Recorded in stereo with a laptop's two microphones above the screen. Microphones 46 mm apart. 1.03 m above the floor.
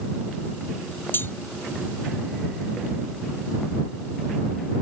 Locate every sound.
1.1 s cutlery clinking: 55° left (ahead or behind)